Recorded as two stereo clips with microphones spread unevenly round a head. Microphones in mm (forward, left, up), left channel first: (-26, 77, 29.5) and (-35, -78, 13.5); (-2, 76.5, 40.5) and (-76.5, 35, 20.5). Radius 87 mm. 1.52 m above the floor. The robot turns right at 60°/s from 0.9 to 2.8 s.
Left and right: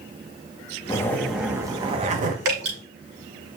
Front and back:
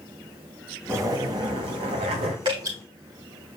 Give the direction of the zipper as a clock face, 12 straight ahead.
7 o'clock.